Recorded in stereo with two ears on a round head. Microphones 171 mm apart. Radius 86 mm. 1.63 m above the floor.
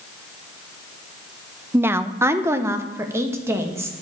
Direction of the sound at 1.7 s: 10° right (ahead or behind).